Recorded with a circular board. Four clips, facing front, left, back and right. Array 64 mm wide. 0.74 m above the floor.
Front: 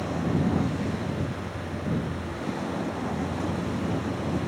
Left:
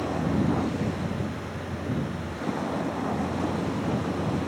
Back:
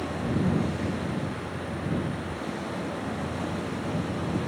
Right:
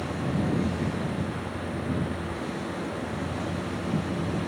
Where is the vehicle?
75° left.